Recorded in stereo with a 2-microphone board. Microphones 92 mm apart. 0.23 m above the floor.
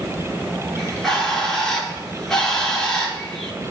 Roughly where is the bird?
Centre.